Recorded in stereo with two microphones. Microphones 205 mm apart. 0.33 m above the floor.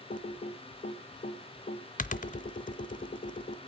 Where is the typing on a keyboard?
45° left (ahead or behind), 0.7 m.